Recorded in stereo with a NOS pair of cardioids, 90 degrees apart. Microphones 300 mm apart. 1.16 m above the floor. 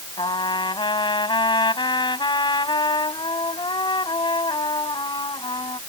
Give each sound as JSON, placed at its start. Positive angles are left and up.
{"t": 0.2, "sound": "a trumpet", "azimuth_deg": 15}